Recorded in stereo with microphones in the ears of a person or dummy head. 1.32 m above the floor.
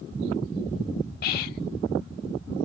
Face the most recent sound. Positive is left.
turn(degrees=50)  # may be behind; listen again after turning